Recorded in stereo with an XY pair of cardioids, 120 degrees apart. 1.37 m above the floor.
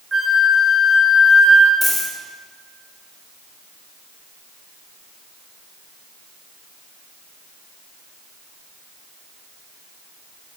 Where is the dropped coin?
5° left, 2.5 m.